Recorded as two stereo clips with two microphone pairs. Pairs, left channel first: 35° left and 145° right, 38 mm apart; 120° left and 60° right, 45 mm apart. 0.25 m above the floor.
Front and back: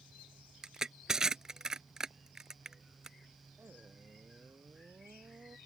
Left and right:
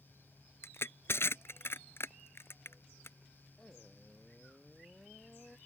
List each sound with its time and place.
0.6 s crushing: 140° left
3.6 s a man speaking: 170° right